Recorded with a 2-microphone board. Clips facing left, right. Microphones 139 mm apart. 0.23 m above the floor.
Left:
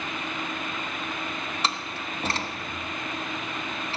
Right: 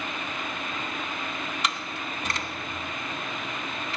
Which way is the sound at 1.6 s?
35° left (ahead or behind).